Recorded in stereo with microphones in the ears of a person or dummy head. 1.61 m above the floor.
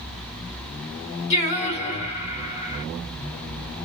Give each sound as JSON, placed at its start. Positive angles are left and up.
{"t": 1.3, "sound": "singing", "side_deg": 40, "distance_m": 2.0}